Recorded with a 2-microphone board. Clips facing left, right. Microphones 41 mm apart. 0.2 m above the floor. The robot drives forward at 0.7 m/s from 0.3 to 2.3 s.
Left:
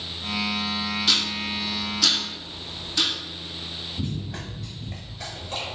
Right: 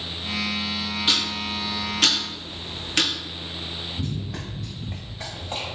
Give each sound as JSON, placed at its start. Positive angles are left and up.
{"t": 1.1, "sound": "ticking", "side_deg": -25, "distance_m": 1.1}
{"t": 4.0, "sound": "running footsteps", "side_deg": 15, "distance_m": 0.7}